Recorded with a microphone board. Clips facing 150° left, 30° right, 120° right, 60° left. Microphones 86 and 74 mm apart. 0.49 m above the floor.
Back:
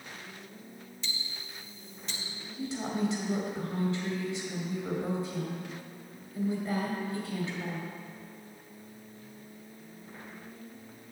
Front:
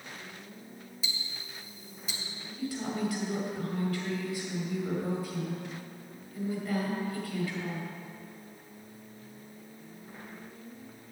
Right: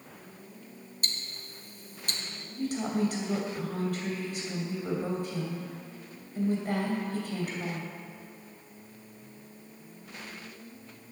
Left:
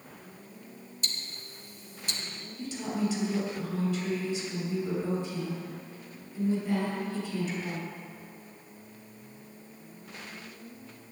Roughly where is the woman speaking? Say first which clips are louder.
Back 1 dB, right 3 dB; behind right.